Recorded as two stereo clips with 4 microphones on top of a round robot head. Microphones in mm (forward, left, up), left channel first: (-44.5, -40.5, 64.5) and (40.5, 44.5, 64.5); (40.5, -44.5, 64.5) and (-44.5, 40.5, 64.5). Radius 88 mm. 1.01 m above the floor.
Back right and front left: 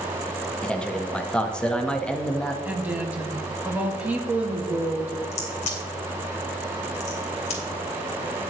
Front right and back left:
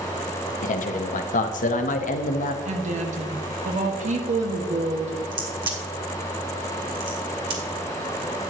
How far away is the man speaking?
About 1.0 m.